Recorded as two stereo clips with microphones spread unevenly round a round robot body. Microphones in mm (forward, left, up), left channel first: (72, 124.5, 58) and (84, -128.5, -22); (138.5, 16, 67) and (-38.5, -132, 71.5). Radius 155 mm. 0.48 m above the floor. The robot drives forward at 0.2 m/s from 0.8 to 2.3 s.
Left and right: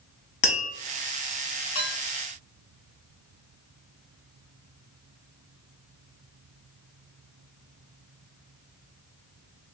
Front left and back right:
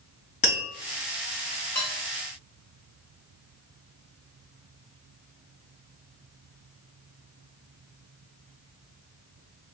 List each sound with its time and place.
0.4 s tapping: 105° left, 1.8 m
1.8 s dishes clattering: 125° left, 1.6 m